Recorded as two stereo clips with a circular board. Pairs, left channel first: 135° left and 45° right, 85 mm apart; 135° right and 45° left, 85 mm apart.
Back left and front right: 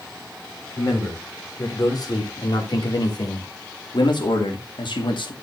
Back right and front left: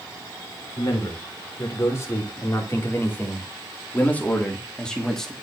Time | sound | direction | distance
0.8 | a man speaking | straight behind | 4.5 m